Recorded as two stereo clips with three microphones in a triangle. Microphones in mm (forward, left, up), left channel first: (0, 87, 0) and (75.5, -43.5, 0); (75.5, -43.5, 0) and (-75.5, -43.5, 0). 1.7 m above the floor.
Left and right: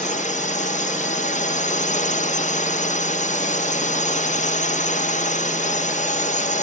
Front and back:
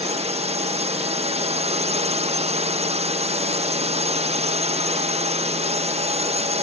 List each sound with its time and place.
0.0 s a drone: 140° left